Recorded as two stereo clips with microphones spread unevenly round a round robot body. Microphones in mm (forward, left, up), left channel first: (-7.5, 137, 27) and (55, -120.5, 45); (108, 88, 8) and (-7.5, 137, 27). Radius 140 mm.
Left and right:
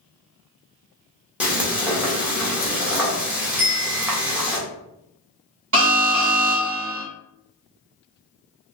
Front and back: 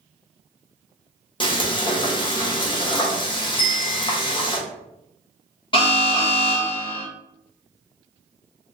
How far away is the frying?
About 1.2 m.